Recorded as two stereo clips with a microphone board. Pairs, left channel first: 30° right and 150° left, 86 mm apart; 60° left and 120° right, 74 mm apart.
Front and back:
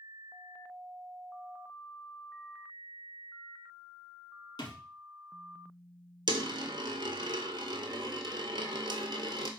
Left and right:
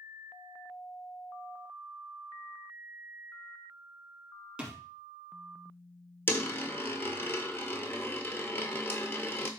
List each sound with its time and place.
4.6 s a thud: 45° right, 0.9 m
6.3 s a dropped coin: 120° left, 0.6 m